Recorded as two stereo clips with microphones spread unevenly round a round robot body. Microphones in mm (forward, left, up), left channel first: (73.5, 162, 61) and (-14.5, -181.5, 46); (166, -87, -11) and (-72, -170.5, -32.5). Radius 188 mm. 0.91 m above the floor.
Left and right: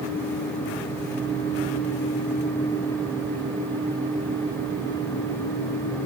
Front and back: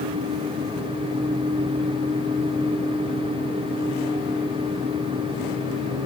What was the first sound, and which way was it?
Only background noise.